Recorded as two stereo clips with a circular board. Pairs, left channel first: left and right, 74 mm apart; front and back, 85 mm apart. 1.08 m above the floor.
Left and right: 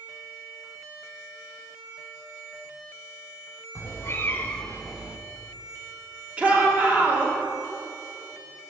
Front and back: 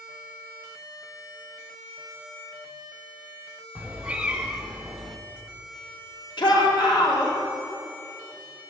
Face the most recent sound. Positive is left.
turn(degrees=-20)